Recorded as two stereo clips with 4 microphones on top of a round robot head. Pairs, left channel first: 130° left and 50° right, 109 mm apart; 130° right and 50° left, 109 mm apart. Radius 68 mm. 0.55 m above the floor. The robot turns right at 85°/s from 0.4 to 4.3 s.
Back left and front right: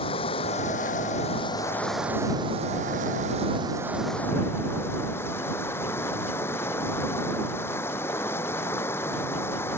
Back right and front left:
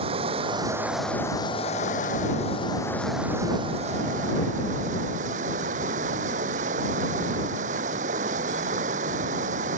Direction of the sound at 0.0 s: 90° left.